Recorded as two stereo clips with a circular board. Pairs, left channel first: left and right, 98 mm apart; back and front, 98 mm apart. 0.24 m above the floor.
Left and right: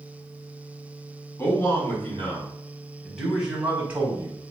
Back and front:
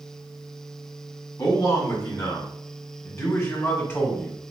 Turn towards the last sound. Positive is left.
turn(degrees=-130)